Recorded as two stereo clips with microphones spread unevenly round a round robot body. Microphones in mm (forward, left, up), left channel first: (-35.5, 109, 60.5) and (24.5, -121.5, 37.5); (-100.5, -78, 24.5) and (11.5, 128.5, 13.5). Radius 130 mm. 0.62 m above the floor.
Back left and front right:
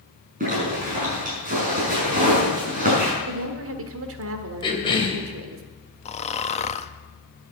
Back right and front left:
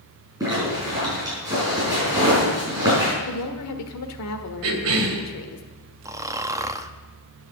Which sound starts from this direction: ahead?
A zipper, at 0.4 s.